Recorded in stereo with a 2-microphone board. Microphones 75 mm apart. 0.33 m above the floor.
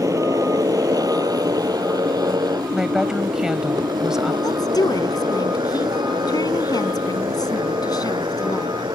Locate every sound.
0.0 s a motorcycle: 50° right (ahead or behind); by 9.0 s 80° right
2.7 s a woman speaking: 10° right (ahead or behind)
4.4 s a woman speaking: 60° left (ahead or behind)